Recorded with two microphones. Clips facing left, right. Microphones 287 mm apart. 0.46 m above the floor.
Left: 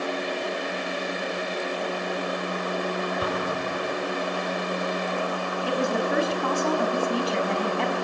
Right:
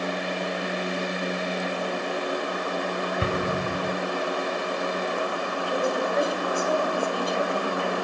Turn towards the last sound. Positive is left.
turn(degrees=75)  # may be behind; listen again after turning